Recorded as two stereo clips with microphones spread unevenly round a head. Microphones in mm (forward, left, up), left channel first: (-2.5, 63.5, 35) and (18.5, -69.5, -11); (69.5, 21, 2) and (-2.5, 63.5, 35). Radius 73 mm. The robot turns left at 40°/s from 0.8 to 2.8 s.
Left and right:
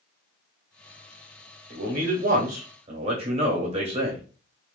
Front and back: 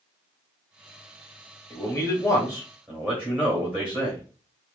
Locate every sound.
1.7 s a man speaking: 85° right, 1.6 m; by 4.2 s 130° right, 1.6 m